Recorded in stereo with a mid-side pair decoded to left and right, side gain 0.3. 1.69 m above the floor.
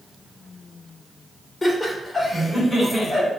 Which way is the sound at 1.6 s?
45° left.